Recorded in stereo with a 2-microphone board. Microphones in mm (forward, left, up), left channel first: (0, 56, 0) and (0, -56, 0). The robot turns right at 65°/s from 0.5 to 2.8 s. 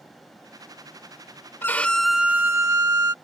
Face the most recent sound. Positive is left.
turn(degrees=-130)